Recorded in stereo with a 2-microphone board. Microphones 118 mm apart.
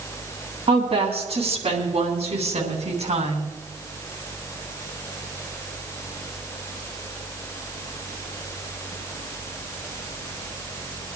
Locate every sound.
0.7 s a woman speaking: 55° right (ahead or behind), 3 m; by 3.5 s 65° right (ahead or behind), 3 m